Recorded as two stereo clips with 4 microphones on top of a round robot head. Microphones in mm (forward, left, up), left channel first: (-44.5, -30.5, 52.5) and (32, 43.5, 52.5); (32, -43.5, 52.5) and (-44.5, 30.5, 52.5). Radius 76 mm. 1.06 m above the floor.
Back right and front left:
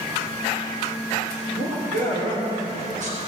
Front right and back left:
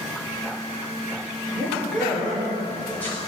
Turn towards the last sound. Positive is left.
turn(degrees=30)